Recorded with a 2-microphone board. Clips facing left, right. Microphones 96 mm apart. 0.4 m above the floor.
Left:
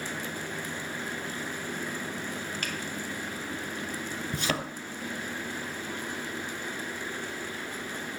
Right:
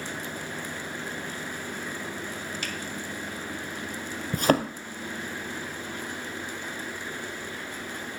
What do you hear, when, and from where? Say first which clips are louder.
2.6 s a finger snap: even; 50° left (ahead or behind), 1.4 m
4.3 s a thud: right 10 dB; 45° right (ahead or behind), 0.7 m